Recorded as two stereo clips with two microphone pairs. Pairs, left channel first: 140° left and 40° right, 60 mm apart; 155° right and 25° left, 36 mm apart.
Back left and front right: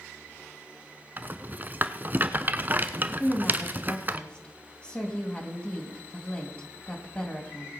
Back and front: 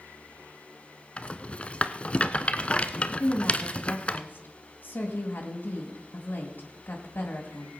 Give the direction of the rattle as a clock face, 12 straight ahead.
3 o'clock.